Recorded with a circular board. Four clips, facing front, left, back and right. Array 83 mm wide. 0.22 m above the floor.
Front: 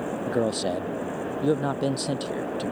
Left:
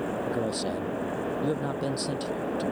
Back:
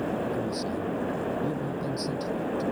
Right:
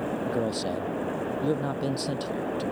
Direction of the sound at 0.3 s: 5° right.